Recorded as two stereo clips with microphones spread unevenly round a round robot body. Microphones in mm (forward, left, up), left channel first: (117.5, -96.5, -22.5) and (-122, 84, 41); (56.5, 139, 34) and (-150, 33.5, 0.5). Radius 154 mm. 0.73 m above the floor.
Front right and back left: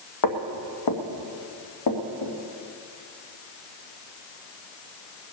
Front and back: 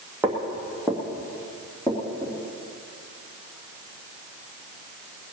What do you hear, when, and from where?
0.2 s footsteps: 65° right, 1.8 m; by 2.4 s 50° right, 3.5 m